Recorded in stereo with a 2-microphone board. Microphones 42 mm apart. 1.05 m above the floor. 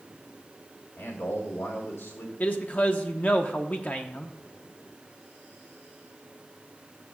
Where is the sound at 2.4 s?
40° left (ahead or behind), 0.7 m.